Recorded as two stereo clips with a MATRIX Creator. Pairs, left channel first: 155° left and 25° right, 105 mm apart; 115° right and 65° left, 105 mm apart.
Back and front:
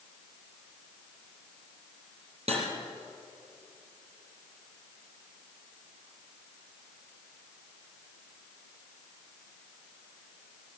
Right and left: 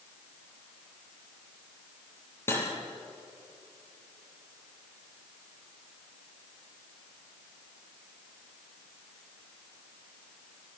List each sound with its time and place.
2.5 s cutlery clinking: 40° right, 4 m